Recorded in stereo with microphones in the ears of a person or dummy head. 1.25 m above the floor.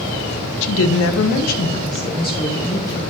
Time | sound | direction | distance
0.6 | a woman speaking | 65° left (ahead or behind) | 0.8 m